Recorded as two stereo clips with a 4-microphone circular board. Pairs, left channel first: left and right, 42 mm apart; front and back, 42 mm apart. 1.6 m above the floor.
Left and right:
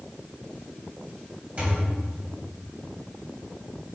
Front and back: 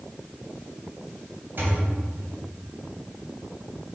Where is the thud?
145° right, 3 m.